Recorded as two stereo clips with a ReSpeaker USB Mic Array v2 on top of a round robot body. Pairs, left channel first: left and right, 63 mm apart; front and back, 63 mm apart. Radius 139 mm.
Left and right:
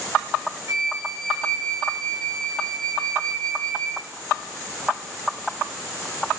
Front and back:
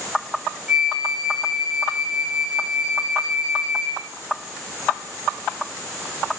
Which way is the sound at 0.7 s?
110° right.